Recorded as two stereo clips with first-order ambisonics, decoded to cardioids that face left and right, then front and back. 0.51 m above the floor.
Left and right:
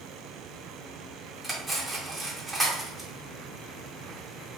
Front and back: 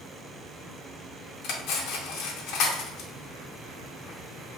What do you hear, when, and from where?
1.4 s cutlery clinking: 5° right, 0.6 m